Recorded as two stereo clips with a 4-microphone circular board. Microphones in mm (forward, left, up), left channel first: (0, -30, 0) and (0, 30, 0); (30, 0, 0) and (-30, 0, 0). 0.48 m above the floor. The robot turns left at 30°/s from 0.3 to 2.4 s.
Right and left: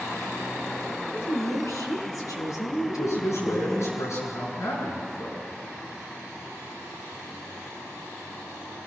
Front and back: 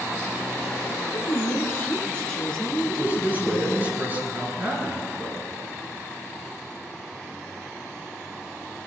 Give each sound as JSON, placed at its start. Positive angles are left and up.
{"t": 0.9, "sound": "a woman speaking", "azimuth_deg": -30, "distance_m": 4.5}
{"t": 2.9, "sound": "a man speaking", "azimuth_deg": -125, "distance_m": 7.5}